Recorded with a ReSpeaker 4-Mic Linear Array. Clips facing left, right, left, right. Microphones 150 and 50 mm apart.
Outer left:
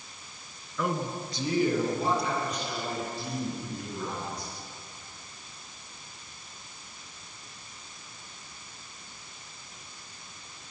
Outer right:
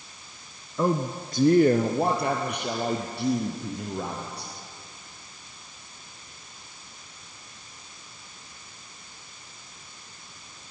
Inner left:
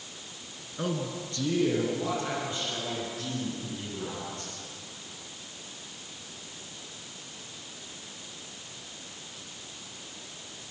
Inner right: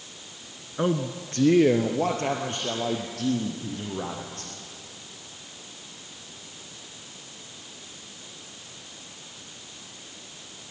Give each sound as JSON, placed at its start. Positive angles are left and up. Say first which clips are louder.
{"t": 0.8, "sound": "a man speaking", "louder": "outer right 5 dB, inner right 6 dB", "side_deg": -30, "distance_m": 1.1}